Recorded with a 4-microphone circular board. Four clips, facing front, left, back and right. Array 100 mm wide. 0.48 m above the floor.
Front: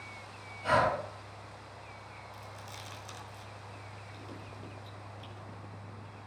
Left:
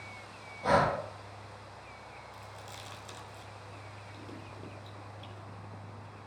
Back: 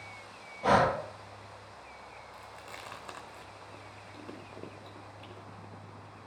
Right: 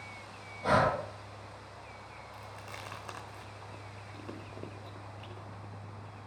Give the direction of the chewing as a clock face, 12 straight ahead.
4 o'clock.